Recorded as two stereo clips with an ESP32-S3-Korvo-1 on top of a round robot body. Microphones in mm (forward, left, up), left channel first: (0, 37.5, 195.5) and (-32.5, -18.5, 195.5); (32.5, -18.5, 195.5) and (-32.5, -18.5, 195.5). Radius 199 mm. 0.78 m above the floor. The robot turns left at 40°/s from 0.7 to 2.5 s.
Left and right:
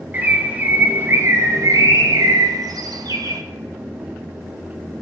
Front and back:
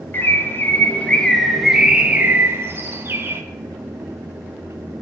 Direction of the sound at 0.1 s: 60° right.